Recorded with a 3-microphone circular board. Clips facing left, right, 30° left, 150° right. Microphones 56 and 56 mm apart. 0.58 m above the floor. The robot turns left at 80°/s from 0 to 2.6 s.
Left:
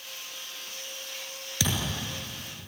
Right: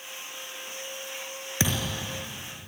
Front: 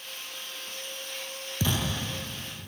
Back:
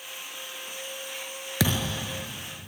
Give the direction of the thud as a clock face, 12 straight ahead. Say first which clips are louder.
Right 2 dB, back 3 dB; 5 o'clock.